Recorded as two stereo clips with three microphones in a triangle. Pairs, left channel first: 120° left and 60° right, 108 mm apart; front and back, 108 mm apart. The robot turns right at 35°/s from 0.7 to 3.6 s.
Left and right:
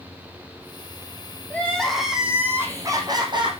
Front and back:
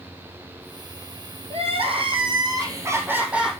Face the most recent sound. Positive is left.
turn(degrees=-90)